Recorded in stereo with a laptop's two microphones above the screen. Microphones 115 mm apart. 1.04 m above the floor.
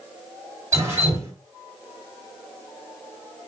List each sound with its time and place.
0.7 s dripping: 30° right (ahead or behind), 3.5 m